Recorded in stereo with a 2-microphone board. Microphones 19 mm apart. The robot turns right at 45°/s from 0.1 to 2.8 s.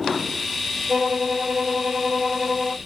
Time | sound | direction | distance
0.9 | a violin | 110° right | 2.0 m